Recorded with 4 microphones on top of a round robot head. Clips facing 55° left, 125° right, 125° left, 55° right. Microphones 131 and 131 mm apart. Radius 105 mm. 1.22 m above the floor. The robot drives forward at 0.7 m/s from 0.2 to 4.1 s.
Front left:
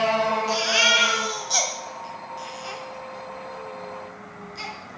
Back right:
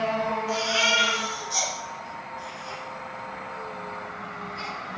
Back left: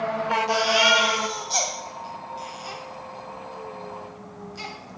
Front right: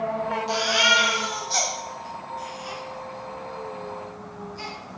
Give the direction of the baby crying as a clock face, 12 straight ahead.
11 o'clock.